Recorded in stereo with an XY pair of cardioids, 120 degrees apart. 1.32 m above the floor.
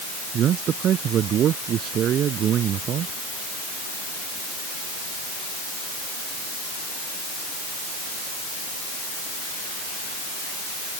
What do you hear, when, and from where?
0.3 s a man speaking: 55° right